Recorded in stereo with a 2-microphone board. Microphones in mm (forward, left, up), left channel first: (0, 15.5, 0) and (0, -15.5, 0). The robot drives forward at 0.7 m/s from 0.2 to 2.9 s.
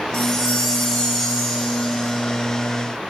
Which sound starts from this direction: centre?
A chime, at 0.1 s.